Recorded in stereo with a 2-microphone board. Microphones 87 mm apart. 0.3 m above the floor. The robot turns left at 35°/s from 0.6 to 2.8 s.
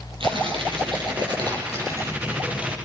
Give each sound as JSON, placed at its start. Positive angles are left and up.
{"t": 0.2, "sound": "tearing paper", "azimuth_deg": -95, "distance_m": 6.0}